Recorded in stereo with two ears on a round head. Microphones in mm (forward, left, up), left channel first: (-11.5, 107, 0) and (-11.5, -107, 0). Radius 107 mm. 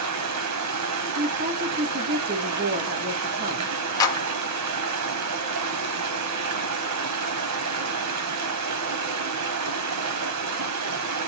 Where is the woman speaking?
40° right (ahead or behind), 1.4 m.